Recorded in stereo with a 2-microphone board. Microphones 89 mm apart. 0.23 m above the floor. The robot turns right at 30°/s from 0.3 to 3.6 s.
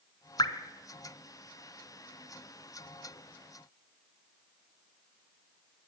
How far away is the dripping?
About 1.0 m.